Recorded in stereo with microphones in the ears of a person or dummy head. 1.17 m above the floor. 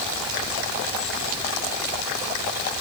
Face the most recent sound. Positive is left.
No sound to turn to.